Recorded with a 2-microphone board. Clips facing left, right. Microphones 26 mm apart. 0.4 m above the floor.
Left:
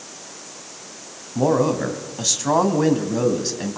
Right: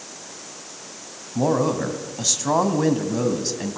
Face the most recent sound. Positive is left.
turn(degrees=5)  # may be behind; listen again after turning